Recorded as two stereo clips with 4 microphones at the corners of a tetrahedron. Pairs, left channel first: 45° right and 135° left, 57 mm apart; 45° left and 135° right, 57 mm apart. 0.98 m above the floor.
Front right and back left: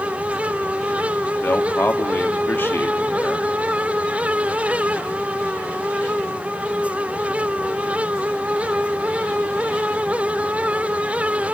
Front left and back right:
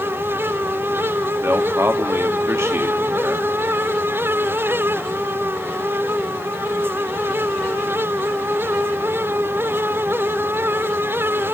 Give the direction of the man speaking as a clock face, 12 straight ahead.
3 o'clock.